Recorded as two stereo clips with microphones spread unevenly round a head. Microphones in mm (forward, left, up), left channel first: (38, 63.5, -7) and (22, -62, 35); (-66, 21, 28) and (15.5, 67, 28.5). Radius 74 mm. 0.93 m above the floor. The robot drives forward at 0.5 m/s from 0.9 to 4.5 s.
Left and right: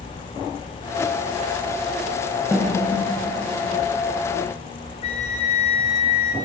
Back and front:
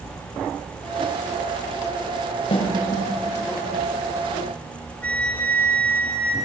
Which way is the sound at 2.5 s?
175° right.